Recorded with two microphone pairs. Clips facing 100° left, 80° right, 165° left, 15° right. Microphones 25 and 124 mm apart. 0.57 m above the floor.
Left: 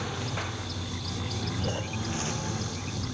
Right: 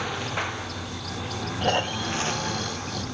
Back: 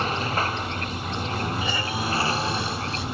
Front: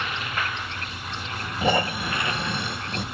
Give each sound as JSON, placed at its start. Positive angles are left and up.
{"t": 0.0, "sound": "a lawn mower", "azimuth_deg": -145}
{"t": 1.6, "sound": "snoring", "azimuth_deg": -50}